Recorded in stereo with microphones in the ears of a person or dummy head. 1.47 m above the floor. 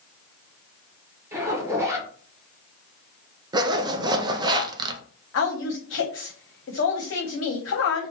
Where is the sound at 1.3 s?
15° right (ahead or behind), 1.3 m.